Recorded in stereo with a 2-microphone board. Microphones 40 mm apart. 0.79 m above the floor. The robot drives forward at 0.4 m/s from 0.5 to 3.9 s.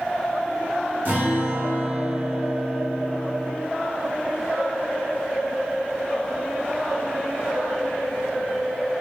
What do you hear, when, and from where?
1.1 s a guitar: 55° right (ahead or behind), 1.6 m; by 3.5 s 40° right (ahead or behind), 1.9 m